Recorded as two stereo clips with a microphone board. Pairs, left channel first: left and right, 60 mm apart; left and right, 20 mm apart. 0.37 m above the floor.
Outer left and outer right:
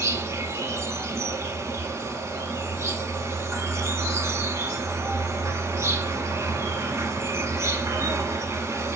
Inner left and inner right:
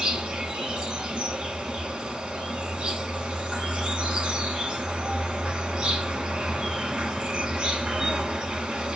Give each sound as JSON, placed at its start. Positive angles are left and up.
{"t": 0.0, "sound": "an insect", "side_deg": -55, "distance_m": 0.8}